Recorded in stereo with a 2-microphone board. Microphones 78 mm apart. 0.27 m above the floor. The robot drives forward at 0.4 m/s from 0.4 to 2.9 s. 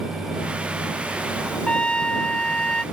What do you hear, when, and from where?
1.7 s a trumpet: 10° left (ahead or behind)